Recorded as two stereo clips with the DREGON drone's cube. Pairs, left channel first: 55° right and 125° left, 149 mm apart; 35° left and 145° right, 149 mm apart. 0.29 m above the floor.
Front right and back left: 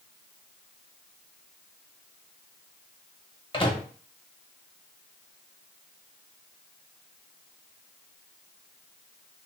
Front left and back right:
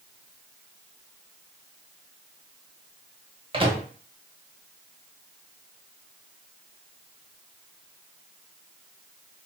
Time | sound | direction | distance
3.5 | a microwave | 100° right | 1.0 m